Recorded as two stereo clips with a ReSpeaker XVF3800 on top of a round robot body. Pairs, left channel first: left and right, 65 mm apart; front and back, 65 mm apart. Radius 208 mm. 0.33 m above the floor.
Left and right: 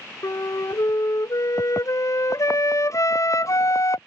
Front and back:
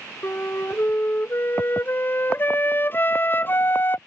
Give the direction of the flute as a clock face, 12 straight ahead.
10 o'clock.